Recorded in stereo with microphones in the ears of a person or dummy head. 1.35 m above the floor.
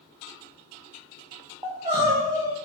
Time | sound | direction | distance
1.6 | crying | 20° right (ahead or behind) | 0.7 m